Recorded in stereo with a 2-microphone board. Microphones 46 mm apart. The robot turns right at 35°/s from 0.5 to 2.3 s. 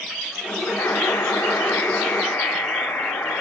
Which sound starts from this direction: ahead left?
A buzzer, at 0.8 s.